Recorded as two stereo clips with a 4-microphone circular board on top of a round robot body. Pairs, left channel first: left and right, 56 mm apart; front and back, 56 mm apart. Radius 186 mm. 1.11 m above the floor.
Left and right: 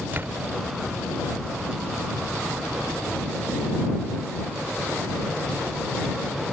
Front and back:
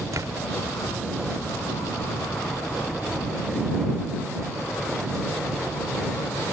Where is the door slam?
145° right.